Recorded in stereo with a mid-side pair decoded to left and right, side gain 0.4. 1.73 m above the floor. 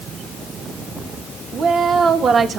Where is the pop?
I don't hear a pop.